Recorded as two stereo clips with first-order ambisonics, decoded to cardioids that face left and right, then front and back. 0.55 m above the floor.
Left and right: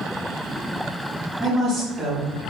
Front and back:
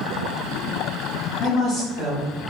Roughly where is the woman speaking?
Ahead right.